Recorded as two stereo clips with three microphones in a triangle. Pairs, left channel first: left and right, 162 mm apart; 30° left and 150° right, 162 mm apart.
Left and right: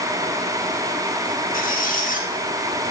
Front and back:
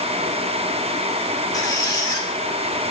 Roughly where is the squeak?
Left.